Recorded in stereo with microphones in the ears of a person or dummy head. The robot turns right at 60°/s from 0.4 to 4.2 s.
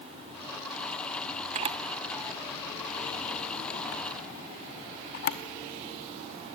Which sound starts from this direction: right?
A camera shutter, at 1.6 s.